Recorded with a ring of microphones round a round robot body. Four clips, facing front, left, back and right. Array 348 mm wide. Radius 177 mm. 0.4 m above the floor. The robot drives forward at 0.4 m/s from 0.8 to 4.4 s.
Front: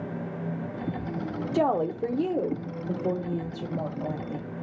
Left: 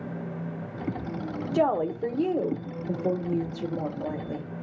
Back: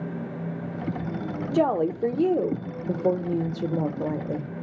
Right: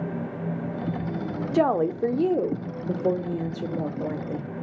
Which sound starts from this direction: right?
A woman speaking, at 1.5 s.